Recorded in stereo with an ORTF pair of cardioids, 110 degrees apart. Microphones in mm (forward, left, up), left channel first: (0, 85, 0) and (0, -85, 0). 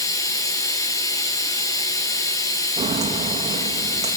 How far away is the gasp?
No gasp in this recording.